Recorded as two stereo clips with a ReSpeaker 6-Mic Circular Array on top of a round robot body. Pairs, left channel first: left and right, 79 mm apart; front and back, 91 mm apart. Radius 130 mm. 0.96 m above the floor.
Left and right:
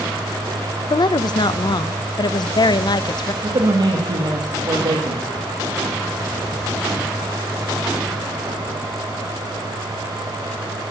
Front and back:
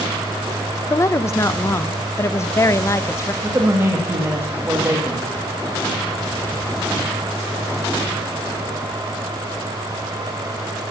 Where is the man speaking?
115° right, 2 m.